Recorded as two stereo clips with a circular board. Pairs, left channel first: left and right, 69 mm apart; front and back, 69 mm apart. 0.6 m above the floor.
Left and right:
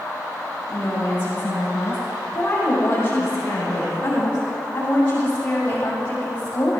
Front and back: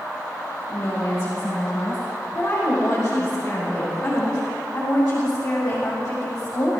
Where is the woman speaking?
30° left, 6.5 m; by 6.8 s 20° left, 3 m.